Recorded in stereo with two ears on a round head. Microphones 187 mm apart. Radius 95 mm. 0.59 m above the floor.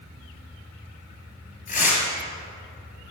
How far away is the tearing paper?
About 4.5 m.